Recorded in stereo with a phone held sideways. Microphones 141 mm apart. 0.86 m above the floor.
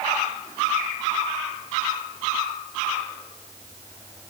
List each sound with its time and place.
Only background noise.